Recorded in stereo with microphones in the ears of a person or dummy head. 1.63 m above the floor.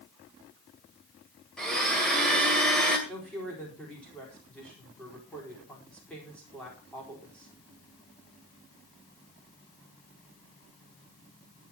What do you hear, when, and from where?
1.6 s a blender: 5° left (ahead or behind), 2.0 m
3.1 s a woman speaking: 5° left (ahead or behind), 4 m